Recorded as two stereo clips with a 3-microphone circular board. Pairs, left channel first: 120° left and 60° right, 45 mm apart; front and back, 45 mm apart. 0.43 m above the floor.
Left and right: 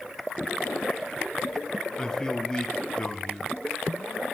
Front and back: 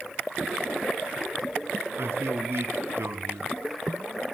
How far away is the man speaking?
About 3 m.